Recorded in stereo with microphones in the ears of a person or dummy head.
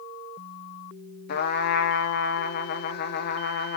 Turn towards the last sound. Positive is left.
turn(degrees=45)  # may be behind; listen again after turning